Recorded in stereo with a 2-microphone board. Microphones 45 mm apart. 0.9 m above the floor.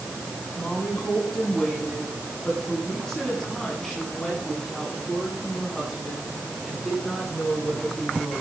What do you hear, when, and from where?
0.6 s a woman speaking: 15° left (ahead or behind), 9.5 m; by 8.4 s centre (ahead or behind), 11.5 m